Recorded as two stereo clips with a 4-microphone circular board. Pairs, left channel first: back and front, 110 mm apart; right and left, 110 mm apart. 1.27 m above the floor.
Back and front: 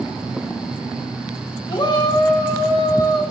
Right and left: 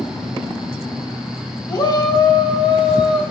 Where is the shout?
140° right, 1.5 m; by 3.2 s 135° right, 2 m.